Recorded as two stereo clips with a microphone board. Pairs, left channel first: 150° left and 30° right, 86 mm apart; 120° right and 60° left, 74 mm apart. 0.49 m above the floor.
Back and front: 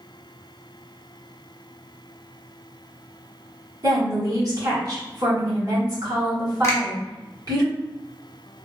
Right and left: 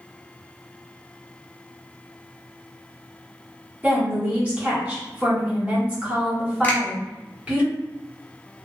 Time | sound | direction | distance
3.8 | a woman speaking | 5° right | 1.5 m
6.6 | a finger snap | 175° right | 0.8 m